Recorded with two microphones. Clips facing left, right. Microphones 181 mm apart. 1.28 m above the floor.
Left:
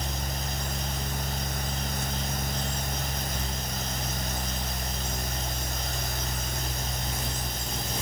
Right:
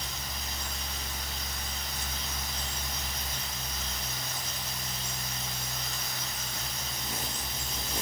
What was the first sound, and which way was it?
Only background noise.